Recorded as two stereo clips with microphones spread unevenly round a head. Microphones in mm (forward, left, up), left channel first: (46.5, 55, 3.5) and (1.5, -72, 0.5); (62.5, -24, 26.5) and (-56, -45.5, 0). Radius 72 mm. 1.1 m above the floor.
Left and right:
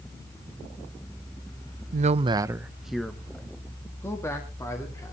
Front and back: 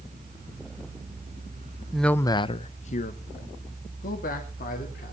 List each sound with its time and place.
1.9 s a man speaking: 90° right, 0.6 m; by 5.1 s 5° left, 2.5 m